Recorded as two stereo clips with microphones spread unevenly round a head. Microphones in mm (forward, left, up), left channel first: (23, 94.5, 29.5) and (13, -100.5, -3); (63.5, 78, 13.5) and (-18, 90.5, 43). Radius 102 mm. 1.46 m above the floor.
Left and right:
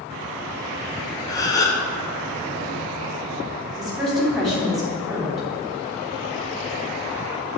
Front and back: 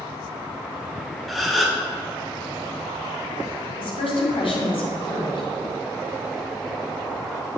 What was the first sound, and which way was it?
A gasp, 120° left.